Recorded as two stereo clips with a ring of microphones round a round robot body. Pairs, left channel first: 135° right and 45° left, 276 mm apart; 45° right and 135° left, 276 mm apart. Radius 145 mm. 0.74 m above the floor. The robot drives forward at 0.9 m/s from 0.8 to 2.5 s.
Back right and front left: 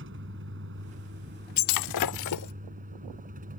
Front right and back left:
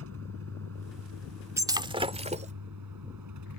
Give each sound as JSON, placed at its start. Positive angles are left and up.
{"t": 0.0, "sound": "a vehicle", "azimuth_deg": 95}
{"t": 1.6, "sound": "breaking glass", "azimuth_deg": -145}